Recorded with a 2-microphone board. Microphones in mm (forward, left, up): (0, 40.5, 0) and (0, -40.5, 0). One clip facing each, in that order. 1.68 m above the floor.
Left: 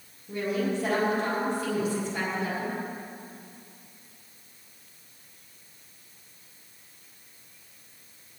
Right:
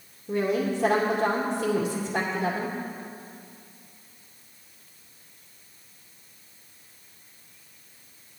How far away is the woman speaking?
About 2.0 m.